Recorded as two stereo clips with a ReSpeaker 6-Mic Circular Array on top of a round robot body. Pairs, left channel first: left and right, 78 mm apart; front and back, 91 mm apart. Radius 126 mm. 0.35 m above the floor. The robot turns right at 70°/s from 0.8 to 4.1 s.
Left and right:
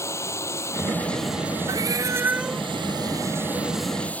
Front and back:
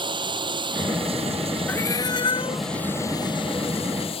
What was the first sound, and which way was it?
Running water, 145° left.